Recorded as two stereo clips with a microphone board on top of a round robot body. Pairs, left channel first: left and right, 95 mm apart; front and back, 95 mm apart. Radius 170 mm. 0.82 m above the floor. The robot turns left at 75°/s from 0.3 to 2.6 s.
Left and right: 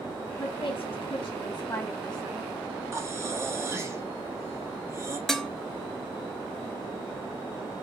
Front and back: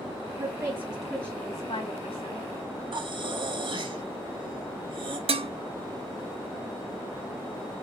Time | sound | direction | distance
0.4 | a woman speaking | 130° left | 2 m
2.9 | breathing | 150° right | 1.7 m
5.3 | dishes clattering | 175° left | 0.7 m